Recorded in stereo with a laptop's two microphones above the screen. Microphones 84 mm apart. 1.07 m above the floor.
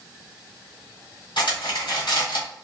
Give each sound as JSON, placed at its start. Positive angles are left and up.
{"t": 1.4, "sound": "cutlery clinking", "side_deg": 70, "distance_m": 1.7}